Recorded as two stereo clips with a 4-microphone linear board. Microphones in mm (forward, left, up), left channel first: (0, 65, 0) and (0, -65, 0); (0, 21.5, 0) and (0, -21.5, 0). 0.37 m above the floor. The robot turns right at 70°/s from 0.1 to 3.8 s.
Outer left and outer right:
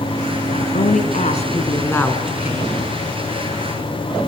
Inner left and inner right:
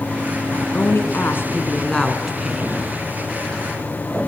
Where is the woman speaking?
60° left, 3.5 m; by 2.8 s 145° right, 3.5 m.